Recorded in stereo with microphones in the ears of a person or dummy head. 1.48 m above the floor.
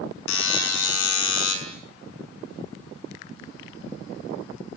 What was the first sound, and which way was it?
A buzzer, 85° left.